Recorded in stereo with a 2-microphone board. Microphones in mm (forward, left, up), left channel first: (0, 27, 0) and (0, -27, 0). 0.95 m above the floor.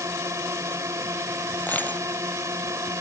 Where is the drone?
75° right (ahead or behind).